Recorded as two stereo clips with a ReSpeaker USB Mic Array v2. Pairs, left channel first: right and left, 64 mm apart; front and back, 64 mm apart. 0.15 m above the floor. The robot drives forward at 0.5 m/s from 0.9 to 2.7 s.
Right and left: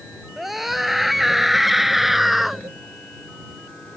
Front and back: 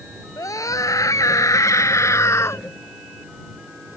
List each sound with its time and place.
0.4 s a scream: straight ahead; by 2.6 s 5° left